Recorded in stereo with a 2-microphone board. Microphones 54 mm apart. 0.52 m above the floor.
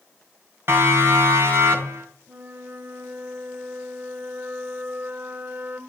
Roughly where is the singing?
No singing in this recording.